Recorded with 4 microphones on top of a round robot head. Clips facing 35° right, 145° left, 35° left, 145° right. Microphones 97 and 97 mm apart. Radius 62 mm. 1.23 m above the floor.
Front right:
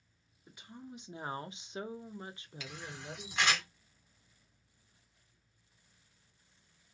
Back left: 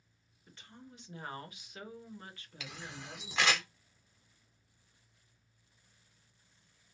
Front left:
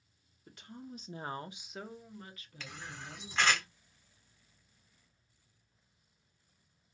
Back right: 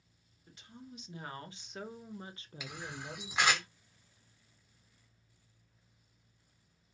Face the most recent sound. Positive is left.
turn(degrees=135)